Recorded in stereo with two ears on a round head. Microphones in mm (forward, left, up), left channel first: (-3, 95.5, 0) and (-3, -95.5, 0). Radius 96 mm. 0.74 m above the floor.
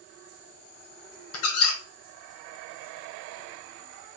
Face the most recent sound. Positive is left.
turn(degrees=70)  # may be behind; listen again after turning